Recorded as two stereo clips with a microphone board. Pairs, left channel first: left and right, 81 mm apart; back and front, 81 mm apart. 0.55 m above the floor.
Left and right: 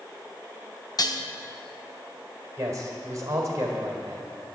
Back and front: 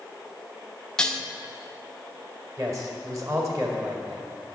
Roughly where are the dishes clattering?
Left.